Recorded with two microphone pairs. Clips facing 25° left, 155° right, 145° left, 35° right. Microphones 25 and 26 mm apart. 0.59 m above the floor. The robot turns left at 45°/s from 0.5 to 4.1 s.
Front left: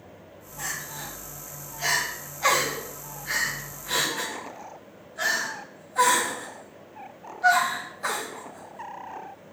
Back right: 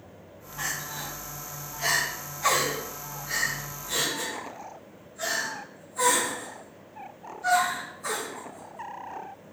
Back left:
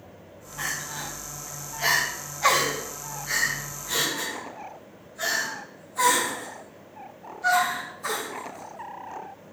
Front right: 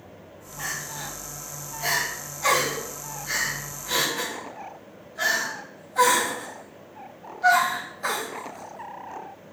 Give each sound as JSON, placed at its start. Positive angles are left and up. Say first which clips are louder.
{"t": 0.6, "sound": "crying", "louder": "back right 1 dB, back left 1 dB", "azimuth_deg": 165, "distance_m": 3.0}